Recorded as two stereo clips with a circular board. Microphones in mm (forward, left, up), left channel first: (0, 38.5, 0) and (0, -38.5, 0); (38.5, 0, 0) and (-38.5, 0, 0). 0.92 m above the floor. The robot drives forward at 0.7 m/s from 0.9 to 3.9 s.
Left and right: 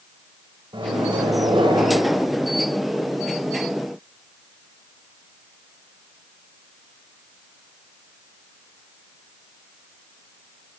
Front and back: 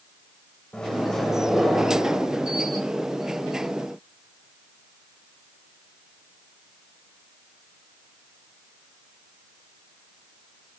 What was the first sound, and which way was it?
A microwave, 80° right.